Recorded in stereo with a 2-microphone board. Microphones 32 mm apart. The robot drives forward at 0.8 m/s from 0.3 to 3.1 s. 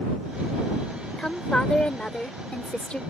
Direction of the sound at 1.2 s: 25° left (ahead or behind).